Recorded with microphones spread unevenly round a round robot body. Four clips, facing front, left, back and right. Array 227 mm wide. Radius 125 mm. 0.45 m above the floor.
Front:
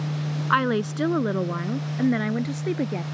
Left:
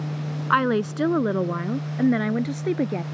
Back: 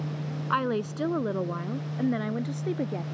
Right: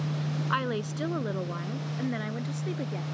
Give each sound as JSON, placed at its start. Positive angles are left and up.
{"t": 0.5, "sound": "a woman speaking", "azimuth_deg": 55}